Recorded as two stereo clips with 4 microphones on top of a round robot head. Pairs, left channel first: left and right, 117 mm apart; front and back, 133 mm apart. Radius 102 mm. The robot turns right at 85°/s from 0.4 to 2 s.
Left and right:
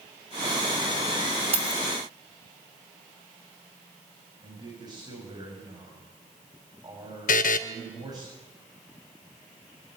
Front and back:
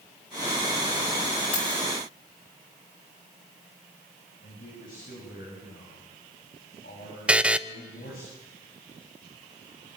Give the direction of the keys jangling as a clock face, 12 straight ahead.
2 o'clock.